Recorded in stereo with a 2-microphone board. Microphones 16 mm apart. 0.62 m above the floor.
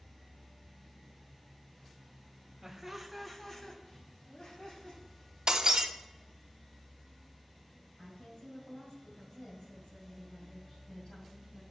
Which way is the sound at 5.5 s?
50° right (ahead or behind).